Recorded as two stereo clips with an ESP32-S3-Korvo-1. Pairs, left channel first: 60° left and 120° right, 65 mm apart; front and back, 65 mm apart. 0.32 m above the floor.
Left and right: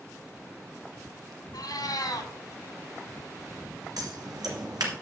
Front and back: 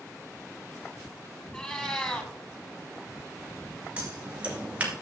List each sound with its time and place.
1.5 s a cat meowing: 75° left, 1.2 m
4.0 s scissors: 110° right, 2 m